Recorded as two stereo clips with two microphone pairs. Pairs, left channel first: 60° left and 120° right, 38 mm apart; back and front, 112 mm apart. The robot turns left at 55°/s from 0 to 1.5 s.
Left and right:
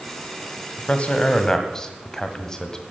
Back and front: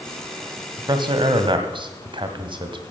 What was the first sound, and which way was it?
A man speaking, 35° left.